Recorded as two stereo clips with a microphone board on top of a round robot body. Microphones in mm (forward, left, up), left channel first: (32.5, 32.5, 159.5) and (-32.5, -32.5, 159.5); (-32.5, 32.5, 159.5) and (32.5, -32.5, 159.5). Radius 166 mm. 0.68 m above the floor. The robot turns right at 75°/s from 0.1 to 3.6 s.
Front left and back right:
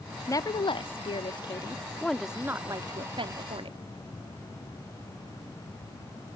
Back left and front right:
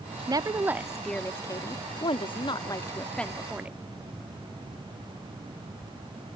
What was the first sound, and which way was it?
A woman speaking, 10° right.